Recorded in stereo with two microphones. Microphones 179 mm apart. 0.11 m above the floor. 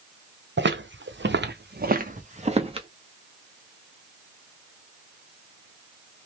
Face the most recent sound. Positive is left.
turn(degrees=-30)  # may be behind; listen again after turning